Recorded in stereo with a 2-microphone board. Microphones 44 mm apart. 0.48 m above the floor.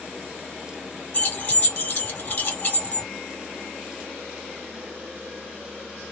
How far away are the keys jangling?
About 1.4 m.